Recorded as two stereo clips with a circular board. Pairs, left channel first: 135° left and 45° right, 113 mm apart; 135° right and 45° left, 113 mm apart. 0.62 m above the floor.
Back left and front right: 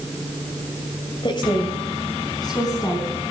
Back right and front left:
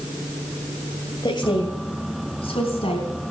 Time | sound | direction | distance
1.2 | a woman speaking | straight behind | 2.5 m